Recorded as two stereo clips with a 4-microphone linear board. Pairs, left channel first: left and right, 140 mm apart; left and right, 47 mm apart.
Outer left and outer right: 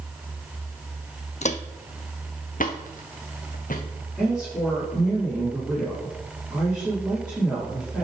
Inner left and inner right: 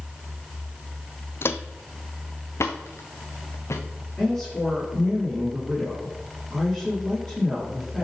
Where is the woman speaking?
Centre (ahead or behind), 5.5 m.